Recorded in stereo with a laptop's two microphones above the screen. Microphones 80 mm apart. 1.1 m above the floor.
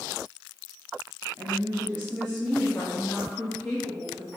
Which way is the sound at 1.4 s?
40° right (ahead or behind).